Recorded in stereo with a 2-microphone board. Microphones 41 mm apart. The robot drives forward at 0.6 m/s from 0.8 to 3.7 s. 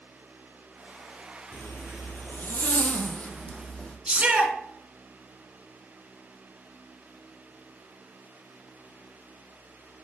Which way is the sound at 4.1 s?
30° right (ahead or behind).